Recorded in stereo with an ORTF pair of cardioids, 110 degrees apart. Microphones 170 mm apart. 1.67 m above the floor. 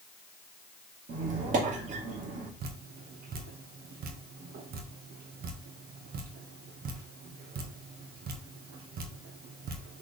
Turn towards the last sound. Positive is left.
turn(degrees=-65)